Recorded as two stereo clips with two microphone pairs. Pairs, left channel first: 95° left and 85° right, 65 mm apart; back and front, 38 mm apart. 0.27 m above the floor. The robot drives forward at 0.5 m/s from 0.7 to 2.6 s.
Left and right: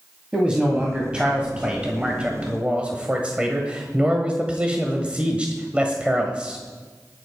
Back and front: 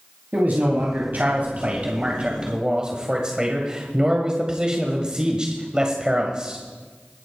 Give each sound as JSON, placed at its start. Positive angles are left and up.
{"t": 0.3, "sound": "a man speaking", "azimuth_deg": -15, "distance_m": 1.9}